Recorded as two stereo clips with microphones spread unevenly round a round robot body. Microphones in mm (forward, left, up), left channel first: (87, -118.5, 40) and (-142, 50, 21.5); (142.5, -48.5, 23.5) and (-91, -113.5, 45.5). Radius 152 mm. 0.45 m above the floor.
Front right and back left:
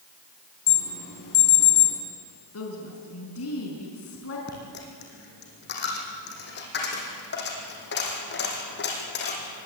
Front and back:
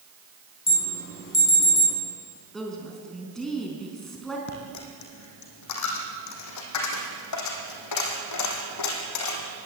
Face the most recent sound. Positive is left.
turn(degrees=20)